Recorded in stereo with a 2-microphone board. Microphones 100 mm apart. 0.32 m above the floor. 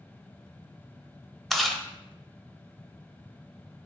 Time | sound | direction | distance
1.5 | chewing | 5° left (ahead or behind) | 0.8 m